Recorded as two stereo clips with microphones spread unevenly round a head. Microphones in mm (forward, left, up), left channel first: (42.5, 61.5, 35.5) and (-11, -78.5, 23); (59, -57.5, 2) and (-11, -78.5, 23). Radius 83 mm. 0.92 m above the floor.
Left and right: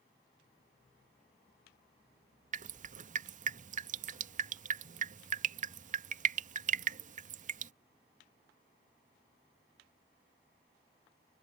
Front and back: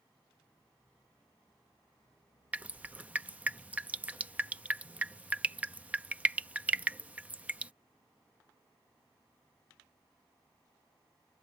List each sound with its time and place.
2.5 s dripping: 85° right